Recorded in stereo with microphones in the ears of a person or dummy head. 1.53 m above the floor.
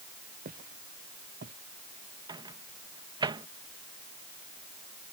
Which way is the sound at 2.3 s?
25° right (ahead or behind).